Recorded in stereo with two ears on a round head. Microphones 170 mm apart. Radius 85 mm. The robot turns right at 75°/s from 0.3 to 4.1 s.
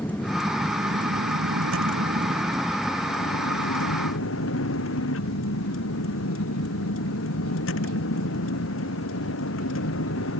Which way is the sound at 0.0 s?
170° left.